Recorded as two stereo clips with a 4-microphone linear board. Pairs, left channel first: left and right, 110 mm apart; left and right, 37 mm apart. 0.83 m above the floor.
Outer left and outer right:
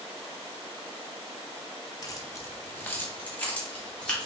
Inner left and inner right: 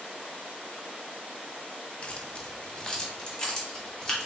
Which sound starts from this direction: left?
Keys jangling, at 2.0 s.